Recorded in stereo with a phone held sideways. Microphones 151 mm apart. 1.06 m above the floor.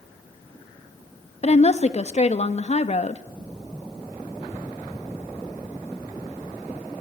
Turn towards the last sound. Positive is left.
turn(degrees=45)  # may be behind; listen again after turning